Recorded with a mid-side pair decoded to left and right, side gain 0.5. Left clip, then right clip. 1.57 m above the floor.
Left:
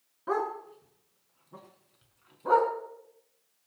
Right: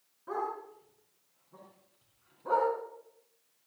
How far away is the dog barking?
About 5.5 m.